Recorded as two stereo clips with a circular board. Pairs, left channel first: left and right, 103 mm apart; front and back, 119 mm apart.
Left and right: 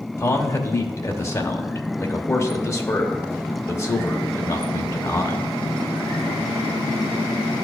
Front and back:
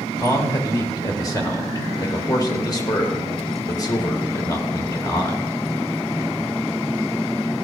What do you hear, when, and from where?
0.2 s a man speaking: 40° left, 1.0 m